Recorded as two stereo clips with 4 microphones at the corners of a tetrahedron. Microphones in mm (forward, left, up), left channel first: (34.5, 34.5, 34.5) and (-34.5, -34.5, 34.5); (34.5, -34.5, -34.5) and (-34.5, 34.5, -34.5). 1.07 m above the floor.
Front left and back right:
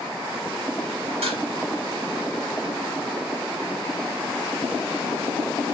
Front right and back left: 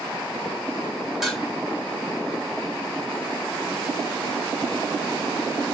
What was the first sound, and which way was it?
Dishes clattering, 135° right.